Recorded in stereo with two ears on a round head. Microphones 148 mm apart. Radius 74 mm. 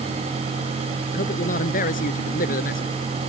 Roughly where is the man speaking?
Left.